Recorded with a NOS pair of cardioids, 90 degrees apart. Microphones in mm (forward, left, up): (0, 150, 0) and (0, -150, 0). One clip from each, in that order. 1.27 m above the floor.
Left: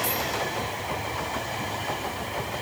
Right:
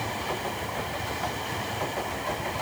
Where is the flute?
No flute in this recording.